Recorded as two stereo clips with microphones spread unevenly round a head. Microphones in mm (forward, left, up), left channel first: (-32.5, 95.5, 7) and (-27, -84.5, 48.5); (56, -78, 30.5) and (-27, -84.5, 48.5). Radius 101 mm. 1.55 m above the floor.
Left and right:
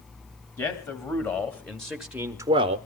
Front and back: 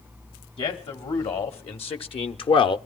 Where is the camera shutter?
No camera shutter in this recording.